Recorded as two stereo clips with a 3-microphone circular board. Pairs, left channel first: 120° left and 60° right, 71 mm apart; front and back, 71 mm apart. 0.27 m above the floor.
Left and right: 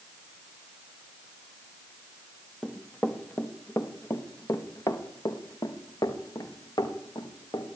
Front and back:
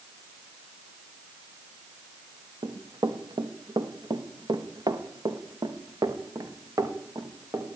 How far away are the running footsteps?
About 4 m.